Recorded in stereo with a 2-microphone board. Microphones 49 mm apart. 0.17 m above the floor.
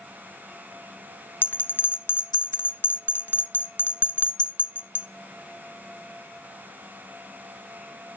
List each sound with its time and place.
1.4 s a bell: 45° left (ahead or behind), 0.6 m